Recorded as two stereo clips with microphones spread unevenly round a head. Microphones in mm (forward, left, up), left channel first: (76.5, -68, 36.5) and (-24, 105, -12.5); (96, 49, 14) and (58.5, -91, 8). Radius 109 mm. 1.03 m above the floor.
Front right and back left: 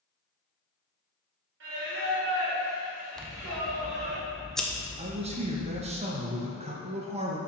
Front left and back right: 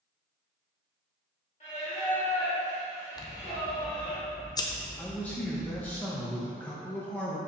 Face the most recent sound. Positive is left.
turn(degrees=155)